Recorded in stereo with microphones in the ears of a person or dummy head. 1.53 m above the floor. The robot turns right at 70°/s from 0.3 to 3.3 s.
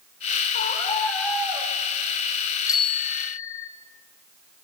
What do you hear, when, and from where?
0.5 s a scream: 125° left, 8 m; by 1.7 s 155° right, 8 m
2.7 s a bicycle bell: 15° left, 3 m; by 3.7 s 60° left, 3 m